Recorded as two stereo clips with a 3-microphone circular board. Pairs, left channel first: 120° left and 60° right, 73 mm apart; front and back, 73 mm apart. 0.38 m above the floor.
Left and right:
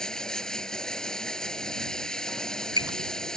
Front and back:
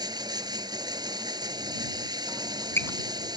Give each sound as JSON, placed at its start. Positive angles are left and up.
{"t": 0.0, "sound": "running water", "azimuth_deg": -160}
{"t": 2.3, "sound": "a squeak", "azimuth_deg": -55}